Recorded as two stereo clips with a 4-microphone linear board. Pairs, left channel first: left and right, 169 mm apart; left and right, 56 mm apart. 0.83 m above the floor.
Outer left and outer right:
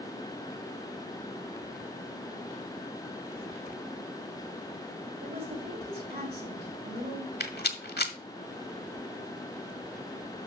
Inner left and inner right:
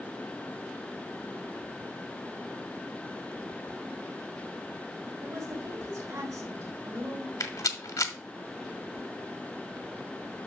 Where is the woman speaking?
85° right, 7 m.